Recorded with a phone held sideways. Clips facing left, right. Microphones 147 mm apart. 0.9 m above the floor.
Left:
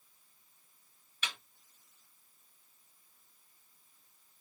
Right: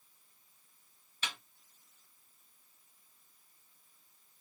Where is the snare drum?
30° right (ahead or behind), 0.9 m.